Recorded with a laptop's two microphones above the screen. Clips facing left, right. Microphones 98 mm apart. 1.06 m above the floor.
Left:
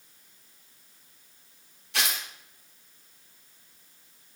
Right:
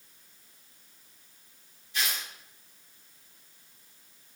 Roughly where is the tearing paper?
Left.